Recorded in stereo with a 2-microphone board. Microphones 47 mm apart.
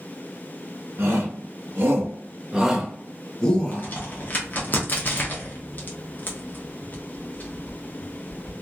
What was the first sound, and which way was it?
A shout, 65° right (ahead or behind).